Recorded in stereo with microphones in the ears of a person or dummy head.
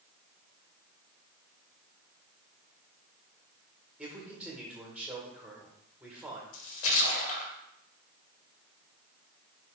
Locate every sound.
4.0 s a man speaking: 10° right (ahead or behind), 1.6 m
6.5 s a splash: 70° left (ahead or behind), 1.6 m